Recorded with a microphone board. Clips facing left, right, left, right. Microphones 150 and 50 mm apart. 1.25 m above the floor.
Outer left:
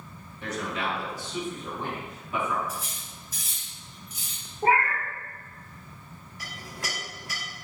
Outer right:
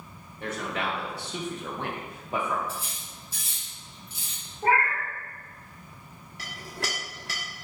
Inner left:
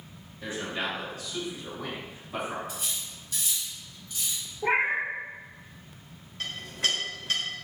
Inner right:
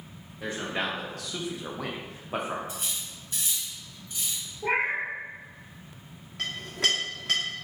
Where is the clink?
75° right (ahead or behind), 1.5 m.